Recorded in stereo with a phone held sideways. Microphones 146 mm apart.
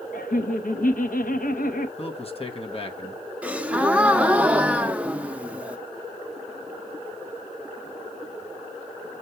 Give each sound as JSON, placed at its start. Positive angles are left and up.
{"t": 0.1, "sound": "laughter", "side_deg": 70, "distance_m": 0.9}
{"t": 2.0, "sound": "a man speaking", "side_deg": 40, "distance_m": 1.2}
{"t": 3.4, "sound": "a gasp", "side_deg": -10, "distance_m": 0.6}